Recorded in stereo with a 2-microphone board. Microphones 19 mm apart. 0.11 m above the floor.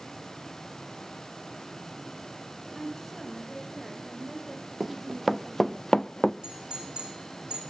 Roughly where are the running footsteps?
Centre.